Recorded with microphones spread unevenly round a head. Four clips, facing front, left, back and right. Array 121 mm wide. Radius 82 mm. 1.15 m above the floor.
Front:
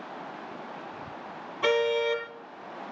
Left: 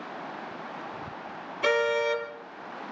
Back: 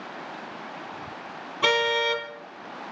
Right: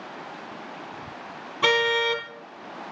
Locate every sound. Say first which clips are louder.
1.6 s a car horn: right 2 dB, even; 125° right, 4 m